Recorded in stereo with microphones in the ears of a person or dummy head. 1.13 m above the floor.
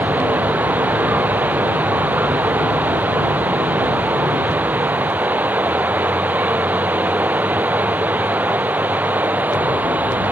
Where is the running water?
5° right (ahead or behind).